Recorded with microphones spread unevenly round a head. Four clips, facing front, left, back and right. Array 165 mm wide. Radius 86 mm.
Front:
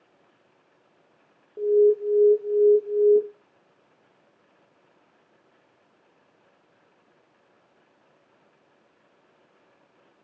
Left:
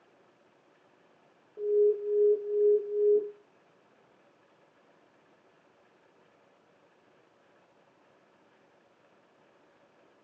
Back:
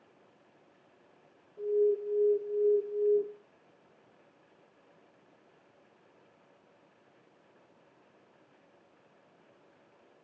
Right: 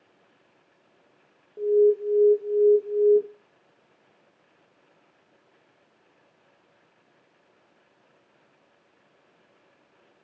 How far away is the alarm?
About 0.8 m.